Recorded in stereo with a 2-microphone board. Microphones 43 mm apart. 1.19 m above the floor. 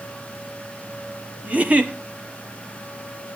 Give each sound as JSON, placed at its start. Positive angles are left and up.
{"t": 1.4, "sound": "a giggle", "side_deg": -35, "distance_m": 1.2}